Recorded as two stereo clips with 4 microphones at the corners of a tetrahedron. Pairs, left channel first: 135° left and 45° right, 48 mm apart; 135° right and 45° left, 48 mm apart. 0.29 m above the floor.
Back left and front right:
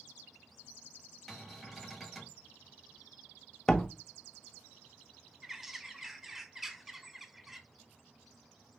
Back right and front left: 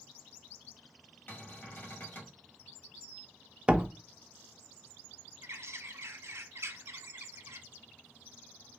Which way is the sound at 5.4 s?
40° left.